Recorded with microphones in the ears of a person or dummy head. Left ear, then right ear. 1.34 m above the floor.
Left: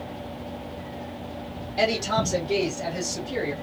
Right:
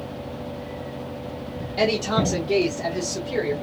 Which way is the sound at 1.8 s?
40° right (ahead or behind).